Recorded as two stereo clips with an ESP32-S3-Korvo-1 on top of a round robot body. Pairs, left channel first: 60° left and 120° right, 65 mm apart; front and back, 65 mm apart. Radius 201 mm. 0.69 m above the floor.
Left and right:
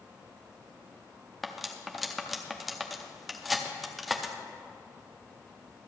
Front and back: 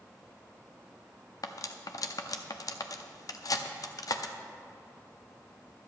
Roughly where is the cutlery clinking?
Ahead right.